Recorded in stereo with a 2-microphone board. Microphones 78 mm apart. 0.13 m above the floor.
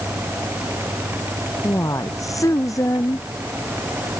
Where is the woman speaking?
45° left (ahead or behind).